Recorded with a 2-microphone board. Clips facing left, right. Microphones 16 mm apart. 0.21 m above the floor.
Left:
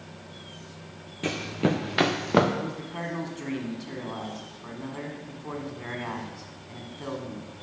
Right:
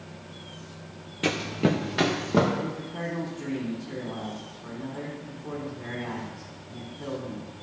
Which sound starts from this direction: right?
Running footsteps, at 1.2 s.